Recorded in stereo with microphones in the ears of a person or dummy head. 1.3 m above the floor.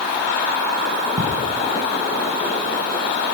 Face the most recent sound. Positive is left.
turn(degrees=-40)  # may be behind; listen again after turning